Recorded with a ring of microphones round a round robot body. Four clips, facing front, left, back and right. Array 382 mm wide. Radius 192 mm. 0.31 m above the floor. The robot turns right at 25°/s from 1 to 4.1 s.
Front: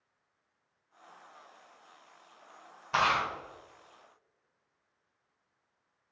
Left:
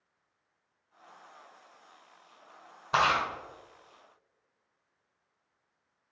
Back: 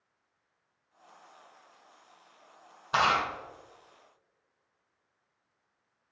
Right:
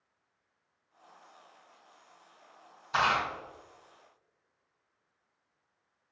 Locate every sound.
2.9 s chewing: 100° left, 1.6 m; by 3.3 s 110° left, 1.6 m